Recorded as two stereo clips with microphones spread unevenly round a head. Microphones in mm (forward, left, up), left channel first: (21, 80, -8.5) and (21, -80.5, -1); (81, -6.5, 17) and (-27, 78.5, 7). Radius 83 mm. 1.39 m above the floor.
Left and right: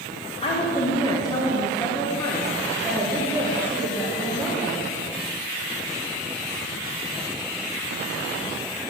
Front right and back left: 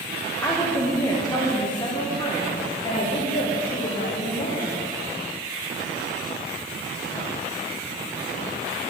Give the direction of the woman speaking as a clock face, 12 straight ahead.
11 o'clock.